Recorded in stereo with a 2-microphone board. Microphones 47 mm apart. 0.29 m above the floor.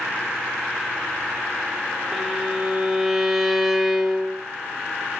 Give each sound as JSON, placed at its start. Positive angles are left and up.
{"t": 2.1, "sound": "a violin", "side_deg": -10, "distance_m": 0.9}